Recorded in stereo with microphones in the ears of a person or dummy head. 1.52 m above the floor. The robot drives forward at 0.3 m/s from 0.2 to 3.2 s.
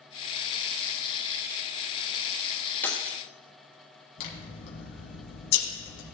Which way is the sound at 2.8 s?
10° left (ahead or behind).